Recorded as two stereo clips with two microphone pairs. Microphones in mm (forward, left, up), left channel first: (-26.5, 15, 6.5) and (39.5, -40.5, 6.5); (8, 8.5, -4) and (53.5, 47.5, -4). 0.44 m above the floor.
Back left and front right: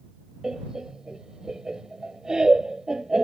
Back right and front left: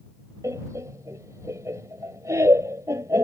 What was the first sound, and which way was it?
Laughter, 40° left.